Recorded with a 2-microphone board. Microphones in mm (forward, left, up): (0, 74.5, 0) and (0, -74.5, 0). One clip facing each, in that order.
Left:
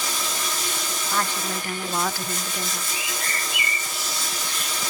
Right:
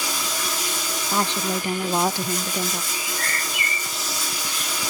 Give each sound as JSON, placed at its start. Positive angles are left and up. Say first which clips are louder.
{"t": 0.0, "sound": "running water", "louder": "right 1 dB", "side_deg": -10, "distance_m": 7.5}
{"t": 1.1, "sound": "a woman speaking", "louder": "right 4 dB", "side_deg": -20, "distance_m": 0.6}
{"t": 2.9, "sound": "a bird", "louder": "right 1 dB", "side_deg": 0, "distance_m": 6.5}